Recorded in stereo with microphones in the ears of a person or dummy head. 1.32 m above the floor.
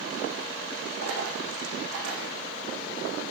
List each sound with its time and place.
1.0 s a dropped coin: 70° right (ahead or behind), 6.5 m